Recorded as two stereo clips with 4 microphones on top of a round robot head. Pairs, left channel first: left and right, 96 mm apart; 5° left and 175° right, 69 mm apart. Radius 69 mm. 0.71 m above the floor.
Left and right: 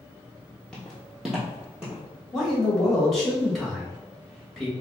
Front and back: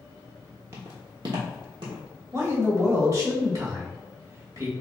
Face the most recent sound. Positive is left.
turn(degrees=175)